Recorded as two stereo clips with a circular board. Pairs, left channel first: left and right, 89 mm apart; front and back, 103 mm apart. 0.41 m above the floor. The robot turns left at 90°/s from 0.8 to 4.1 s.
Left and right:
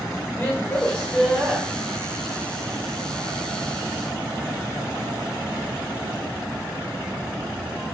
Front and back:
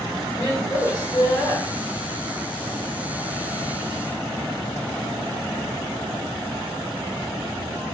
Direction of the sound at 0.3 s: 35° left.